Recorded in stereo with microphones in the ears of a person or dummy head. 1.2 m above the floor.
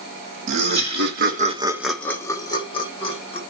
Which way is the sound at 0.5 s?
50° right (ahead or behind).